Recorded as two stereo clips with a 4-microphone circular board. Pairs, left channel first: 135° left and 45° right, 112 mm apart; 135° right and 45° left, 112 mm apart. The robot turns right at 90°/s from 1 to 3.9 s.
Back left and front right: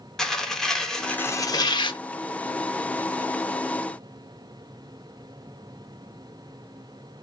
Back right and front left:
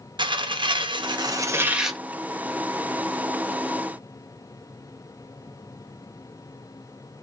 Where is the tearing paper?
55° left, 0.5 m; by 2.0 s 145° left, 0.5 m.